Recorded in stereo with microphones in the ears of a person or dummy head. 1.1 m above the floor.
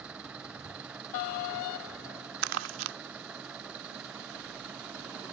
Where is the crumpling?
75° right (ahead or behind).